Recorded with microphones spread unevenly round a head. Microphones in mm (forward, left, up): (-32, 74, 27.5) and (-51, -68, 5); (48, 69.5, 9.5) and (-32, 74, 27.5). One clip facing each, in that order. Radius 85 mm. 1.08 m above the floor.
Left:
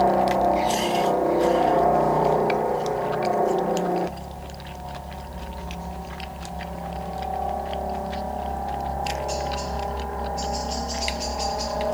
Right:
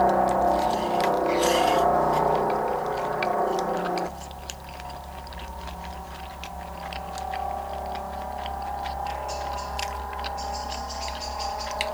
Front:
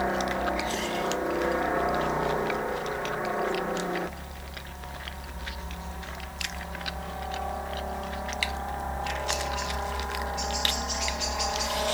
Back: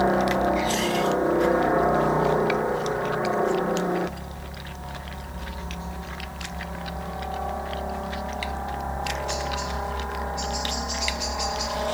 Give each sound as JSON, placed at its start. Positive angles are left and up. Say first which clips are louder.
{"t": 0.0, "sound": "a helicopter", "louder": "left 1 dB, back 6 dB", "azimuth_deg": 150}